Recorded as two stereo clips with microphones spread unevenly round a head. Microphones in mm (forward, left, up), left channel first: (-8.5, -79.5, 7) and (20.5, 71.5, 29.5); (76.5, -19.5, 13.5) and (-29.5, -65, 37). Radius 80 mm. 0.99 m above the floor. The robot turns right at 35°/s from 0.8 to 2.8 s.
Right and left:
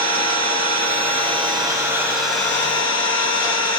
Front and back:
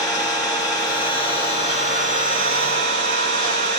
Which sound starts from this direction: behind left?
An engine running, at 0.0 s.